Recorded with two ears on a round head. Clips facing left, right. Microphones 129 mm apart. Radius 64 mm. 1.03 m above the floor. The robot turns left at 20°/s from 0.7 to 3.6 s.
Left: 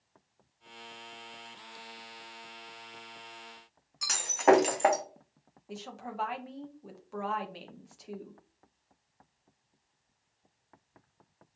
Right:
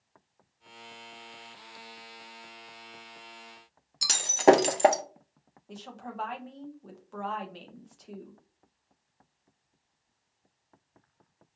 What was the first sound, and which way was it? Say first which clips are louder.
Breaking glass: right 4 dB; 40° right (ahead or behind).